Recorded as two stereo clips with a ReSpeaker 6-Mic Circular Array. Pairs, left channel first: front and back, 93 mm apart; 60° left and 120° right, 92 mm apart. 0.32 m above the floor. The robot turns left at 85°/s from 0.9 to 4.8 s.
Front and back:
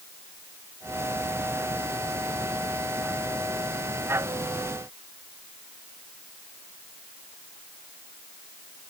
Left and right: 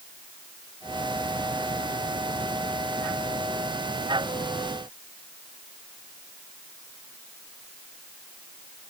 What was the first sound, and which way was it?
Only background noise.